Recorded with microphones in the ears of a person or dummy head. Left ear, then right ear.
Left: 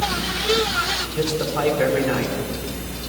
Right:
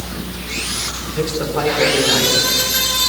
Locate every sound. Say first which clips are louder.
1.1 s a man speaking: right 2 dB; 5° left (ahead or behind), 5.5 m